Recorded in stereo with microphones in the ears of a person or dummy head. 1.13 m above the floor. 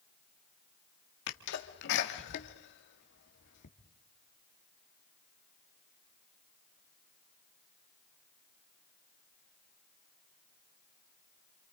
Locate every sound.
1.3 s a sneeze: 65° left (ahead or behind), 2.5 m